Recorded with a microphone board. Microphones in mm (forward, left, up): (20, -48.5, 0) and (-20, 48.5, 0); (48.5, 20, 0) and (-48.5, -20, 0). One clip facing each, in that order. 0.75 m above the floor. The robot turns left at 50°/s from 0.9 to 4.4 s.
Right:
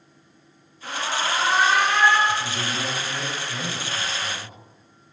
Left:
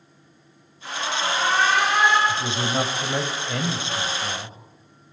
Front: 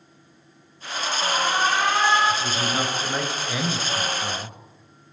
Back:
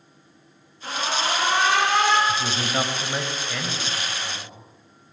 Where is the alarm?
110° right, 8 m; by 2.2 s 175° right, 8 m.